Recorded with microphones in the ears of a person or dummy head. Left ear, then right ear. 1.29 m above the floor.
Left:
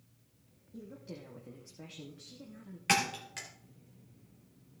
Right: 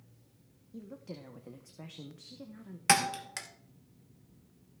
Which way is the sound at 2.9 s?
35° right (ahead or behind).